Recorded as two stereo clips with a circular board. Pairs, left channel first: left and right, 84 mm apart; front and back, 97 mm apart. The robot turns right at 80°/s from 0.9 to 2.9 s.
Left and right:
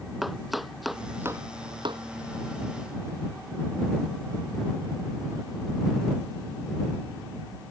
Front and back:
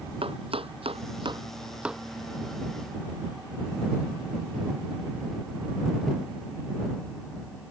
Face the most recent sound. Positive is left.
turn(degrees=-20)